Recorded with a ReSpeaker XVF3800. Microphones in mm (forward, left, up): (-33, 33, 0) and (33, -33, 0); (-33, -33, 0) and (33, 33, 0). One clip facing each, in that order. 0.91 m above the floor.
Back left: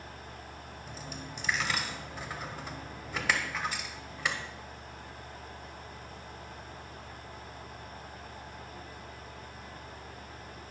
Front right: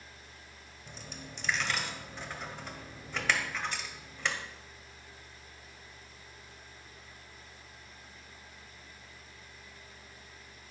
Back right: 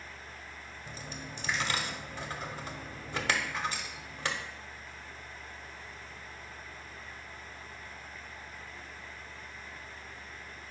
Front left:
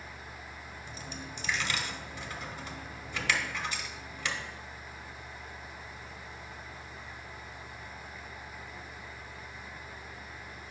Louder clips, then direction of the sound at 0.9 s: Back left 2 dB, back right 1 dB; 145° right.